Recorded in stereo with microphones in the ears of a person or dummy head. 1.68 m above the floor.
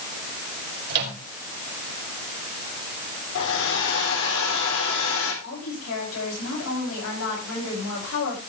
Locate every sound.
0.9 s a microwave: 50° right (ahead or behind), 4.5 m
3.4 s a hair dryer: 65° left (ahead or behind), 4.5 m
5.4 s a woman speaking: 85° left, 9 m